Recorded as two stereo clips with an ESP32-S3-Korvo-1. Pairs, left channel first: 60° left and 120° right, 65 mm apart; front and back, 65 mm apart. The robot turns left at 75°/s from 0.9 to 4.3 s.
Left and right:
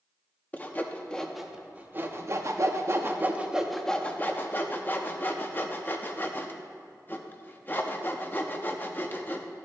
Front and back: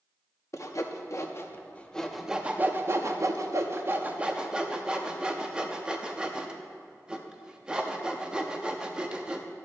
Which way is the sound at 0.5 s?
5° left.